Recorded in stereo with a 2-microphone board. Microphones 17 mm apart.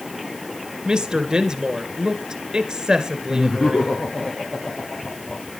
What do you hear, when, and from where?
0.8 s a woman speaking: 40° right (ahead or behind), 2 m
3.3 s laughter: 55° left (ahead or behind), 4 m